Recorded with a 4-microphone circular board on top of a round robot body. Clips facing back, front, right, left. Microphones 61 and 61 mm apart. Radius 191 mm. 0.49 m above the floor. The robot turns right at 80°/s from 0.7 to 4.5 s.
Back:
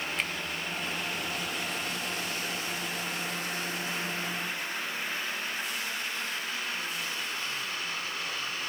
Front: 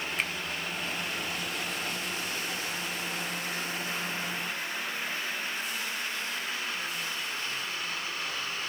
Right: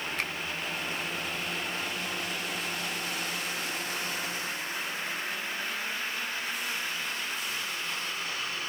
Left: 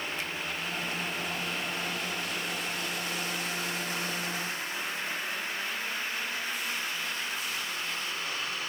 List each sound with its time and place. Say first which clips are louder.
0.2 s a finger snap: front 1 dB, right 3 dB; 80° right, 1.7 m